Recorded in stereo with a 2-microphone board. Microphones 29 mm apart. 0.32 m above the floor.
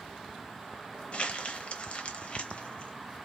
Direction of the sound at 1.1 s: 45° left (ahead or behind).